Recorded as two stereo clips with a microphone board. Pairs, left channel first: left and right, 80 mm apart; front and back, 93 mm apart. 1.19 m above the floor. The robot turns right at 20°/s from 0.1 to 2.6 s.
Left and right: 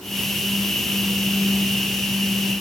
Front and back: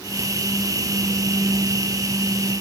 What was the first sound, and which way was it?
Only background noise.